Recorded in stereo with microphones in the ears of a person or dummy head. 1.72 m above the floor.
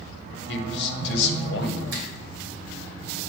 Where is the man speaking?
70° left (ahead or behind), 0.9 m.